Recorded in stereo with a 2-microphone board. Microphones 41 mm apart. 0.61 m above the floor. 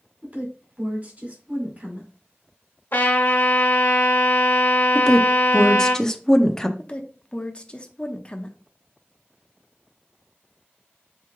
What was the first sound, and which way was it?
A woman speaking, 40° right (ahead or behind).